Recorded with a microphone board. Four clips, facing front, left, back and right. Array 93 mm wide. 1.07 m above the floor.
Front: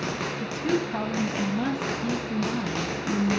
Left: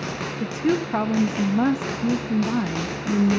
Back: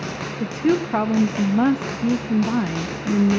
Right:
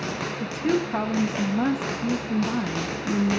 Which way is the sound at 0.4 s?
155° left.